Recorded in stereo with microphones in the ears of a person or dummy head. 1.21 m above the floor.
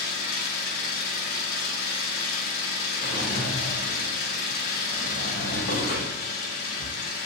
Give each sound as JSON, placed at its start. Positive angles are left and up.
{"t": 0.0, "sound": "an engine running", "side_deg": 50, "distance_m": 1.0}
{"t": 3.0, "sound": "a drawer", "side_deg": 50, "distance_m": 0.8}